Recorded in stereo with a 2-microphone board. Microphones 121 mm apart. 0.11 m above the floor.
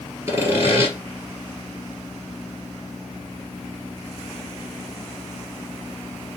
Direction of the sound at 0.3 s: 25° right (ahead or behind).